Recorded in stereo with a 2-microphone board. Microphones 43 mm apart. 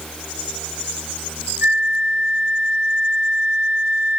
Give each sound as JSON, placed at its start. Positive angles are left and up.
{"t": 1.6, "sound": "a flute", "side_deg": -60, "distance_m": 0.7}